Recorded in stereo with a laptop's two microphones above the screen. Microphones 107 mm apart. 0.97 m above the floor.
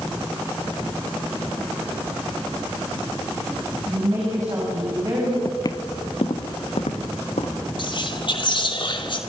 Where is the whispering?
50° left (ahead or behind), 2.5 m.